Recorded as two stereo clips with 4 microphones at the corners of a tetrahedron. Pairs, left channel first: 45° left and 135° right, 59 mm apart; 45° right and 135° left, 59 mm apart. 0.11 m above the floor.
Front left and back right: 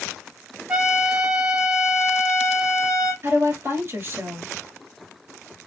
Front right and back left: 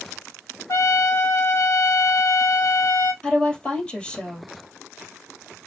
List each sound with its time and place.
0.7 s a trumpet: 60° right, 1.9 m
3.2 s a woman speaking: 115° right, 2.5 m